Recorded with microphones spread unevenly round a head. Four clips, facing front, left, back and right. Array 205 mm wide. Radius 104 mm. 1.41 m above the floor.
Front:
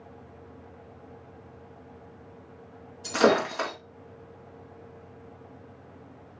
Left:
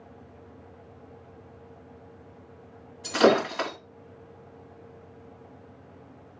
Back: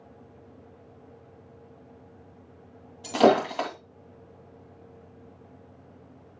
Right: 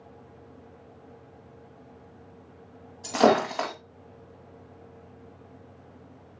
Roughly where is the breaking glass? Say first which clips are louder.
Even, back 2 dB; behind right.